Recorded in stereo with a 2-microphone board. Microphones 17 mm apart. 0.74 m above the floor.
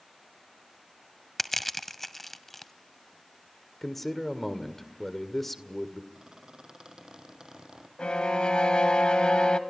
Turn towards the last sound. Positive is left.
turn(degrees=70)  # may be behind; listen again after turning